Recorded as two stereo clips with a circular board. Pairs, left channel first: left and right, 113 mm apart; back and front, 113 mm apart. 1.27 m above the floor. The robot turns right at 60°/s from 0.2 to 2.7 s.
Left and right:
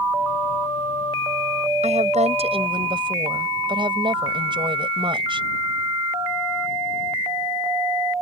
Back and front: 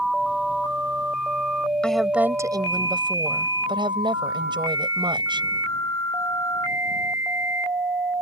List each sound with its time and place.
1.8 s a woman speaking: 100° right; by 5.5 s 45° right